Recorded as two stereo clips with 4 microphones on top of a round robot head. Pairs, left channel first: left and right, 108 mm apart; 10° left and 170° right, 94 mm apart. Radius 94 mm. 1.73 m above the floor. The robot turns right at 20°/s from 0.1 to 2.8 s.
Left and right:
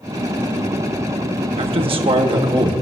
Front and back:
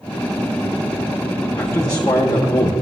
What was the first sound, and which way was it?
A man speaking, 65° right.